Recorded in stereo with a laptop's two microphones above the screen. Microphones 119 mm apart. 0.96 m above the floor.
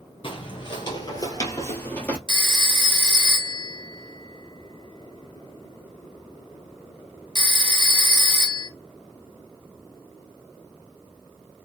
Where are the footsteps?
45° left (ahead or behind), 1.3 m; by 2.2 s 10° left (ahead or behind), 1.2 m.